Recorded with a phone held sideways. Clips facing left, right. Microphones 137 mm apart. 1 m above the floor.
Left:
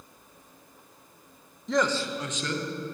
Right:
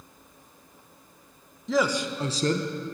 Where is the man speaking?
Centre (ahead or behind), 0.6 m; by 2.7 s 40° right (ahead or behind), 0.7 m.